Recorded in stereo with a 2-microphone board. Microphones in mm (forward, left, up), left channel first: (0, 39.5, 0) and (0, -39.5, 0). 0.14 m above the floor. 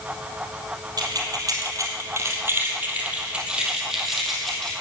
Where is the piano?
No piano in this recording.